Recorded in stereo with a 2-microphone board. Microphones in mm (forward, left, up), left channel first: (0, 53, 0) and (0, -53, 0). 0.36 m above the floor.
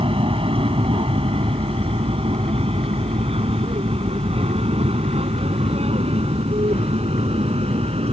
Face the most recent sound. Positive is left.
turn(degrees=-70)  # may be behind; listen again after turning